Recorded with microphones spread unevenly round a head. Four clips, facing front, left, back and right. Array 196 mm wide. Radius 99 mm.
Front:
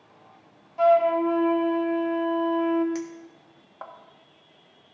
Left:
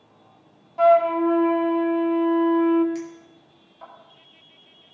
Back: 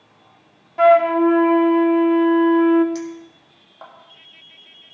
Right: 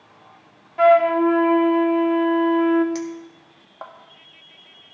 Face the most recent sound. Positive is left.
turn(degrees=-80)